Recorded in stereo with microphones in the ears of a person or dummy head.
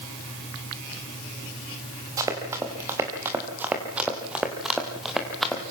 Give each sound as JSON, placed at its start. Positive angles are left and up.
{"t": 2.2, "sound": "running footsteps", "side_deg": -20, "distance_m": 5.5}